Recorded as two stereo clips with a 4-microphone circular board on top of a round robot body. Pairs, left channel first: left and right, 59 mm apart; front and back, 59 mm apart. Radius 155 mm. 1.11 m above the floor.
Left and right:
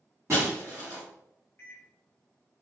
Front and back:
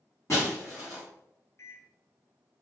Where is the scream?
No scream in this recording.